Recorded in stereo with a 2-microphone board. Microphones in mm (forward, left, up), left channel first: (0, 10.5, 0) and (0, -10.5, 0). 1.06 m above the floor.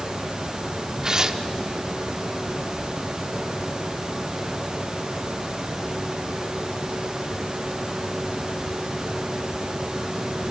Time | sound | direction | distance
1.0 | tearing paper | 30° right (ahead or behind) | 0.9 m